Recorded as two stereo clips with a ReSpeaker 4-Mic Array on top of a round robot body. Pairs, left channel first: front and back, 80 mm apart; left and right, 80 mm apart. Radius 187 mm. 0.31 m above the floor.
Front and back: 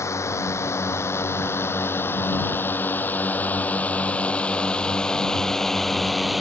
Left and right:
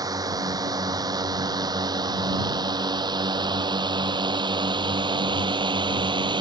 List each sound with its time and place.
0.0 s a drone: 55° right; by 6.4 s 95° right